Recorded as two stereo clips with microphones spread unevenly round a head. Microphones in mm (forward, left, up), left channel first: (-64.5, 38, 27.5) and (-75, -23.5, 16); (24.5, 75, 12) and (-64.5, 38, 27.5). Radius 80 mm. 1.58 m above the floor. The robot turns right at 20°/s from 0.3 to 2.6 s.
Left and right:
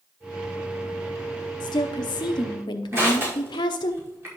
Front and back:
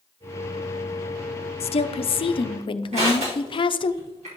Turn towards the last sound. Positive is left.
turn(degrees=-150)